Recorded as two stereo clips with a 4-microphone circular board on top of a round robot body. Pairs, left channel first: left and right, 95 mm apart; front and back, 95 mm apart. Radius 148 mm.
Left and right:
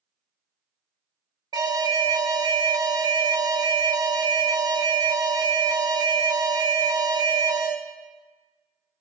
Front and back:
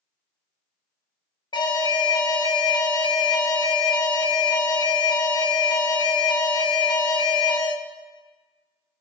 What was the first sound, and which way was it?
An alarm, 40° right.